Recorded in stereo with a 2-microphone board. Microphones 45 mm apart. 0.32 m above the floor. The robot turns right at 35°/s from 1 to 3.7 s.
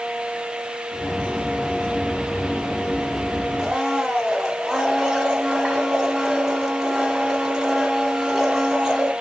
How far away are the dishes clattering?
No dishes clattering in this recording.